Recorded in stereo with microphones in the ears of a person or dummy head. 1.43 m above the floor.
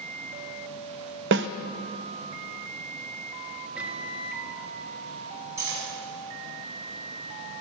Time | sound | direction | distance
1.3 | a snare drum | 65° right (ahead or behind) | 0.5 m
3.8 | a microwave | 5° right (ahead or behind) | 1.9 m
5.6 | cutlery clinking | 15° right (ahead or behind) | 7 m